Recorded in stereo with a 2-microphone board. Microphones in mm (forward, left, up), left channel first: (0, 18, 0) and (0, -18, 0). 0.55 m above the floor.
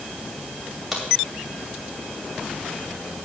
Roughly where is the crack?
Centre.